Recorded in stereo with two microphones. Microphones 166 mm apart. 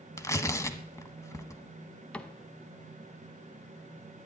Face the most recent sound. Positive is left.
turn(degrees=5)  # may be behind; listen again after turning